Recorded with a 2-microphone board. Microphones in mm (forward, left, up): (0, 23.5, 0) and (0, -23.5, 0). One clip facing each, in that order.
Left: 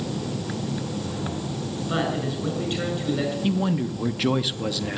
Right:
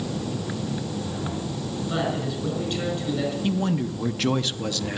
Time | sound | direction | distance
1.9 | a man speaking | 25° left (ahead or behind) | 7 m
3.4 | a man speaking | 10° left (ahead or behind) | 0.6 m